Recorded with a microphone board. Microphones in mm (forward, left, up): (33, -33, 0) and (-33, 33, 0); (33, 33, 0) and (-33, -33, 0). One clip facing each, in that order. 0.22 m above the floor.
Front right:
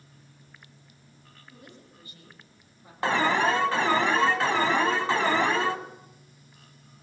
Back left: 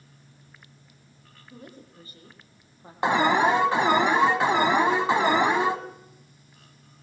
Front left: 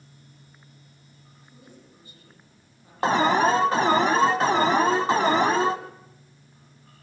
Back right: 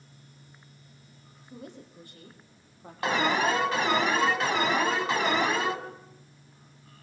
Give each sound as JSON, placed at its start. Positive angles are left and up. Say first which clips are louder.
{"t": 1.5, "sound": "a woman speaking", "louder": "back left 5 dB, back right 7 dB", "azimuth_deg": -165, "distance_m": 7.0}
{"t": 3.0, "sound": "an alarm", "louder": "back left 3 dB, front left 6 dB", "azimuth_deg": 70, "distance_m": 1.3}